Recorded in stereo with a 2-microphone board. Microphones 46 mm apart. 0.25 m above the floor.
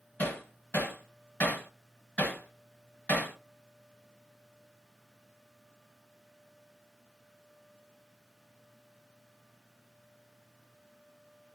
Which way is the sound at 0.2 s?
40° left (ahead or behind).